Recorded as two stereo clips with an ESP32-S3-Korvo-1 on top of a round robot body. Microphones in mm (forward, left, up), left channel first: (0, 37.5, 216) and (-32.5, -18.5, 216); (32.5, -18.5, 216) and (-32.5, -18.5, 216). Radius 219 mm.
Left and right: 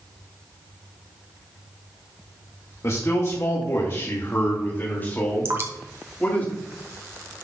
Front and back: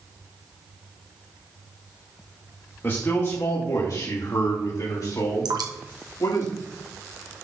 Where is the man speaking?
45° left, 1.8 m; by 6.5 s 5° right, 3 m.